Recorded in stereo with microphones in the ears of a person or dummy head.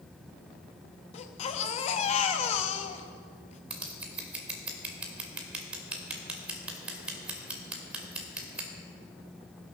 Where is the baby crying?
40° left (ahead or behind), 1.0 m.